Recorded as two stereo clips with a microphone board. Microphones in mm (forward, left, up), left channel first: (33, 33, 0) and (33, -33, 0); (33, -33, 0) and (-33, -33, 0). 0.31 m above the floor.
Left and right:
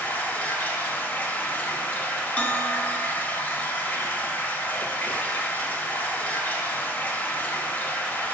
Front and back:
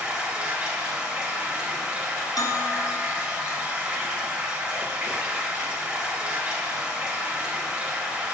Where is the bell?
20° left, 0.5 m.